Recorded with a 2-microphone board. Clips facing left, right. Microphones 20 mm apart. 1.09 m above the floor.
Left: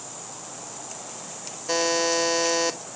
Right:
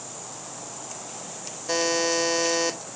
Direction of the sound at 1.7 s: 5° left (ahead or behind).